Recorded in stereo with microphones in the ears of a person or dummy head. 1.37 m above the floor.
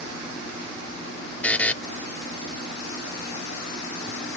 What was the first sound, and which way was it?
A buzzer, centre (ahead or behind).